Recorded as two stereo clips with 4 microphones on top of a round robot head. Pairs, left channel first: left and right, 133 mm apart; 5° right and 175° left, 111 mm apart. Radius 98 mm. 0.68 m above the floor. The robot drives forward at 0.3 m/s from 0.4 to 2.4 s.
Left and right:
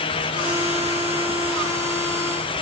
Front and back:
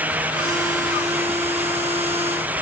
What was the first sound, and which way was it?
Only background noise.